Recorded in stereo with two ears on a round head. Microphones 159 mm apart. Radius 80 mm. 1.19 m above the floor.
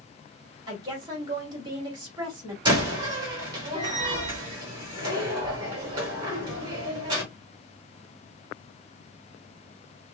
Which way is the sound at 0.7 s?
25° right (ahead or behind).